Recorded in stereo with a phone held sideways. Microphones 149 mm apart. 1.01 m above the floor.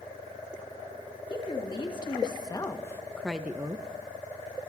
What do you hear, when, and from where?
1.3 s a woman speaking: 35° left (ahead or behind), 1.9 m; by 3.9 s 30° right (ahead or behind), 0.6 m